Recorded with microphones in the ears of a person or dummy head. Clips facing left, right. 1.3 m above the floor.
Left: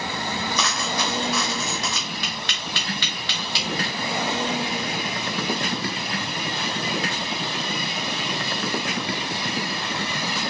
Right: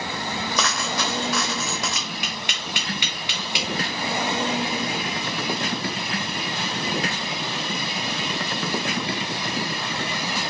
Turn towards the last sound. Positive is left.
turn(degrees=-10)  # may be behind; listen again after turning